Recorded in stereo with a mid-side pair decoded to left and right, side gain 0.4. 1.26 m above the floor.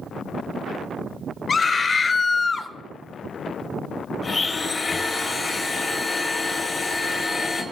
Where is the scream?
40° left, 3 m; by 2.7 s 35° left, 2.5 m.